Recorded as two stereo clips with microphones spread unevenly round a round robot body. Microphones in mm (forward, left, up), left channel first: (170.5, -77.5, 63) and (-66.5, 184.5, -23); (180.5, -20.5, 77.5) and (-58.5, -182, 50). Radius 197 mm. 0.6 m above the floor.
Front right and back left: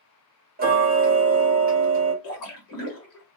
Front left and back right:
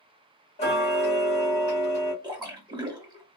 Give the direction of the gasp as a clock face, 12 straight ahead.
I don't hear a gasp.